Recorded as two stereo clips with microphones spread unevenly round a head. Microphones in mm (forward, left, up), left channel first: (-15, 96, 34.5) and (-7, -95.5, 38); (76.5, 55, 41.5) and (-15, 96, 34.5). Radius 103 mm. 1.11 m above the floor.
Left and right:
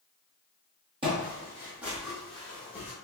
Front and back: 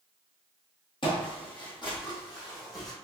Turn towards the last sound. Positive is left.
turn(degrees=15)